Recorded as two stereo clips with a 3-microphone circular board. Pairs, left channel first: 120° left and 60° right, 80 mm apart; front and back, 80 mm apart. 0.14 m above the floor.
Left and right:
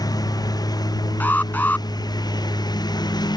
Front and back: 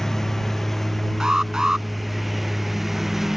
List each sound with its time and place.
0.0 s a lawn mower: 85° left; by 3.4 s 95° left
1.2 s an alarm: 110° left